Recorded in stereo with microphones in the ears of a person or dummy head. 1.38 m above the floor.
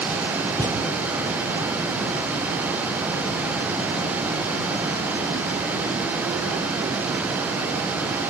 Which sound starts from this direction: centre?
A thud, at 0.6 s.